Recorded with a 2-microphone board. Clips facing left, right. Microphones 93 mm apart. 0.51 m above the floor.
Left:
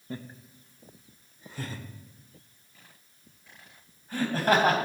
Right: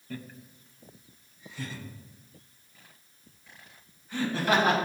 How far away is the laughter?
About 0.7 m.